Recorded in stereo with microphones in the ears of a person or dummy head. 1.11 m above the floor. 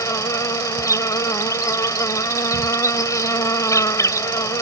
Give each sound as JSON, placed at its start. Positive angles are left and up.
{"t": 0.0, "sound": "an insect", "side_deg": 15}